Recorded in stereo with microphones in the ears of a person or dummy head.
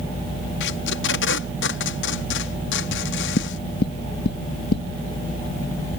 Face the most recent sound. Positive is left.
turn(degrees=65)  # may be behind; listen again after turning